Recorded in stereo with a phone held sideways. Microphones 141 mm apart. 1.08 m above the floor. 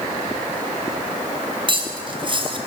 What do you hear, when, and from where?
1.7 s cutlery clinking: 35° right (ahead or behind), 3 m